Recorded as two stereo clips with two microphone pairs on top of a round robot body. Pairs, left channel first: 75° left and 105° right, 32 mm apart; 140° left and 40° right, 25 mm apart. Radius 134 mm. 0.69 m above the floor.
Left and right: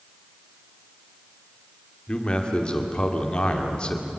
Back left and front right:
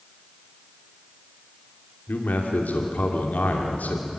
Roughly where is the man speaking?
Behind left.